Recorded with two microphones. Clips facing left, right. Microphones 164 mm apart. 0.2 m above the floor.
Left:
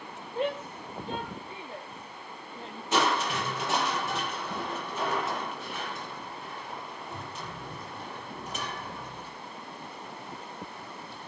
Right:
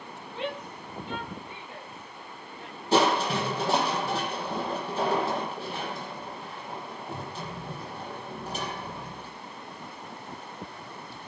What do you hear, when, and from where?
0.3 s a shout: 45° left (ahead or behind), 5.5 m; by 2.8 s 30° left (ahead or behind), 6 m
2.9 s crushing: 35° right (ahead or behind), 5.5 m